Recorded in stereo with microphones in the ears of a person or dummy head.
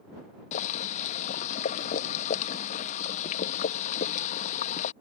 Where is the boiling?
45° left (ahead or behind).